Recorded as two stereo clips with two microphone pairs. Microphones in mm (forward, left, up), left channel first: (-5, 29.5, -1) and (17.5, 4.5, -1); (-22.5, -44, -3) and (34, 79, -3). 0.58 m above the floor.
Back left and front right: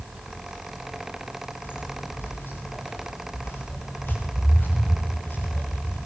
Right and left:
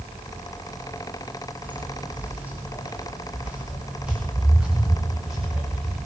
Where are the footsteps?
140° left, 9 m; by 6.0 s 150° left, 13.5 m.